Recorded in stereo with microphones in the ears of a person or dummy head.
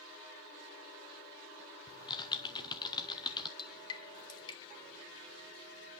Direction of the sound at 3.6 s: 25° left (ahead or behind).